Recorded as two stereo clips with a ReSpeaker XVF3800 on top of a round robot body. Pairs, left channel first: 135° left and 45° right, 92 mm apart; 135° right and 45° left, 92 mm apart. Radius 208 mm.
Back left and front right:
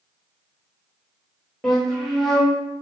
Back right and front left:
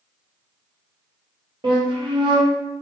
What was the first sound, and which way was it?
A flute, 50° left.